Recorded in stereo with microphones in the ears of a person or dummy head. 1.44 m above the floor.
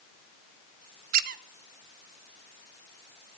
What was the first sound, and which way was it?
A squeak, 50° right (ahead or behind).